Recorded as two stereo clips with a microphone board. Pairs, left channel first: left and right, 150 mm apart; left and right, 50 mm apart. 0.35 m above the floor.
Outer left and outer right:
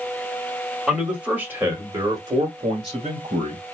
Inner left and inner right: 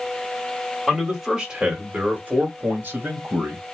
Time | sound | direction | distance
0.9 | a man speaking | 5° right (ahead or behind) | 1.6 m